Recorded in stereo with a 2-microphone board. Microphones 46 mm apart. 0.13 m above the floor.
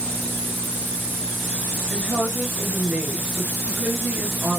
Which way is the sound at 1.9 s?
35° right (ahead or behind).